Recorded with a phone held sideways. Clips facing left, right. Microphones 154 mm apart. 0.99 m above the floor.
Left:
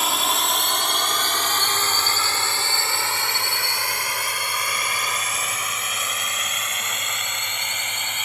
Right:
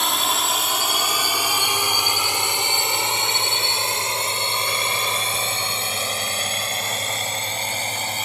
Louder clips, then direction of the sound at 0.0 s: Even; centre (ahead or behind).